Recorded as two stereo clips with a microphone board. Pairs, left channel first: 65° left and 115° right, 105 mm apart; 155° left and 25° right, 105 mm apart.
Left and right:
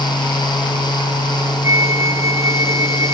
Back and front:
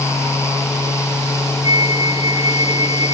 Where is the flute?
175° right.